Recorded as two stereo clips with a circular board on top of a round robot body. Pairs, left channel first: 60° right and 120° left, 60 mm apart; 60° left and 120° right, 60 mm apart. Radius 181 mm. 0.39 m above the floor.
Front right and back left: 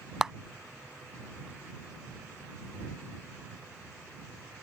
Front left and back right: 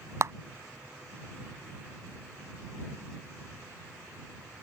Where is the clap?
160° right.